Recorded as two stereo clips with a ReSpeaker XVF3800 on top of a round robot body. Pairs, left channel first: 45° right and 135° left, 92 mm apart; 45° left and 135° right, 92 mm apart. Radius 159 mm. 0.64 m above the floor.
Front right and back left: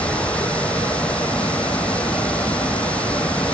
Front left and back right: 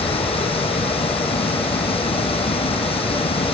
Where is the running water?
30° left.